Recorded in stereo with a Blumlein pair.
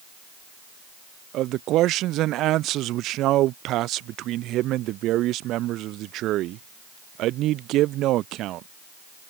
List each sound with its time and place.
1.3 s a man speaking: 35° right